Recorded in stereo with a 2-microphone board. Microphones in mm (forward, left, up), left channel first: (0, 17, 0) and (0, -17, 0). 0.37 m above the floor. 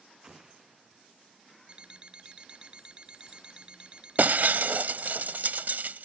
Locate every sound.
0.2 s an explosion: 20° right (ahead or behind)
1.7 s an alarm clock: 25° right (ahead or behind)
4.2 s breaking glass: 60° right (ahead or behind)